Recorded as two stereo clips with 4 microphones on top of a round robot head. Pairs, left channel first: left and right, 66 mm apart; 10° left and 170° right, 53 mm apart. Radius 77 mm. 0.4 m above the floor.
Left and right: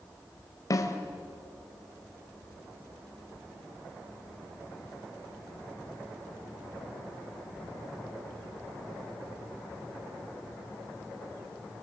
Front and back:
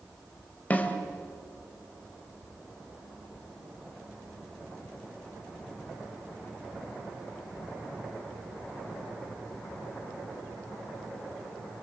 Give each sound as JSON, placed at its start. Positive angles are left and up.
{"t": 0.7, "sound": "a snare drum", "azimuth_deg": 65, "distance_m": 2.5}